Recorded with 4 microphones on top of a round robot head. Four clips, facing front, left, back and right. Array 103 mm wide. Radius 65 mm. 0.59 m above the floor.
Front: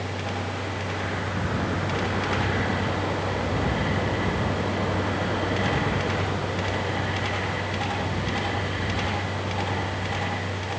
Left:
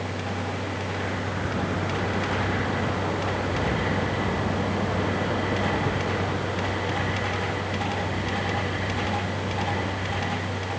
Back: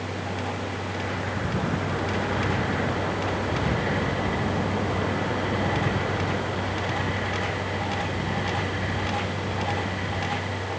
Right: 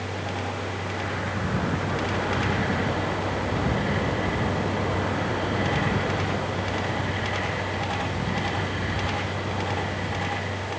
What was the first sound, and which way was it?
Only background noise.